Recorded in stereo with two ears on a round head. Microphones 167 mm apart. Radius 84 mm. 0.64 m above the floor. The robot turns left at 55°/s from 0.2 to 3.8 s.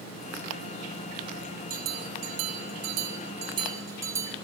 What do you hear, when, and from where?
1.7 s a bell: 50° right, 4.5 m; by 4.3 s 165° right, 4.5 m